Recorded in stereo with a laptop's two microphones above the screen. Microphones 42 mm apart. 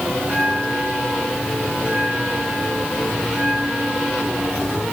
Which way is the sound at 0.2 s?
15° right (ahead or behind).